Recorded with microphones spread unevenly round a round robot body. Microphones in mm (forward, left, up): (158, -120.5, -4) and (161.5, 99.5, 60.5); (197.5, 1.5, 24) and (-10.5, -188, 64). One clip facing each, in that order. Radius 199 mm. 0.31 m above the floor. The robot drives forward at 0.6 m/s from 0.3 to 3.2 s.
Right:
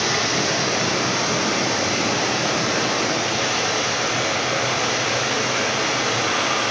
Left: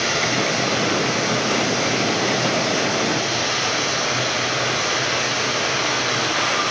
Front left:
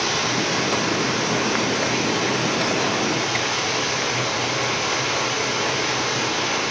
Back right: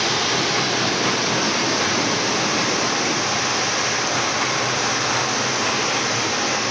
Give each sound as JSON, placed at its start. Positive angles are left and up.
{"t": 0.0, "sound": "running water", "azimuth_deg": -125, "distance_m": 3.5}